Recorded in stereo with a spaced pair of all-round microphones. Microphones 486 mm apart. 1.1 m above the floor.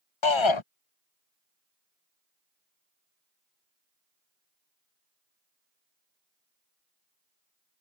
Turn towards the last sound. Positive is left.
turn(degrees=70)  # may be behind; listen again after turning